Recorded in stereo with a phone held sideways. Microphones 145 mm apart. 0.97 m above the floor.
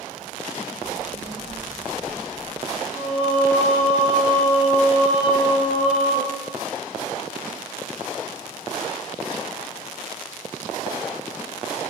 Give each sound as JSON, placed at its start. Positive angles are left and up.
{"t": 0.8, "sound": "a child speaking", "side_deg": -20, "distance_m": 0.6}
{"t": 2.9, "sound": "singing", "side_deg": -50, "distance_m": 3.0}